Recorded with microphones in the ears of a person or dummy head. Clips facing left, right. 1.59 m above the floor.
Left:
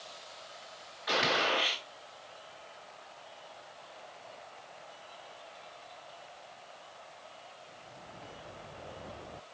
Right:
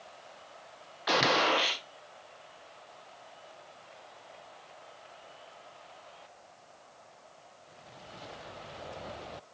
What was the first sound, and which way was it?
A gunshot, 75° right (ahead or behind).